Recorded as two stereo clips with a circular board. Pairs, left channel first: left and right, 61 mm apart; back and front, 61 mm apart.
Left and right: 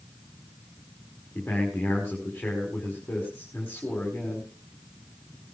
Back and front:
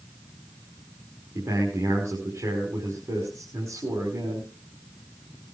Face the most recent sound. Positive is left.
turn(degrees=25)